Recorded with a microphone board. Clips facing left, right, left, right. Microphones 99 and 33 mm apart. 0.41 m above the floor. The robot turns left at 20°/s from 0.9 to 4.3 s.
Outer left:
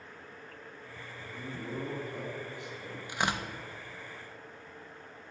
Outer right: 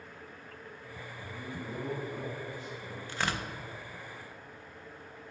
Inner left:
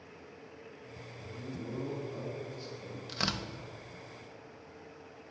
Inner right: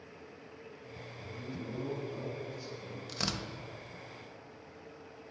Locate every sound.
1.1 s a man speaking: 170° right, 3.5 m; by 3.0 s 155° left, 3.5 m
3.1 s tearing paper: 15° left (ahead or behind), 0.7 m; by 3.5 s 20° left (ahead or behind), 0.7 m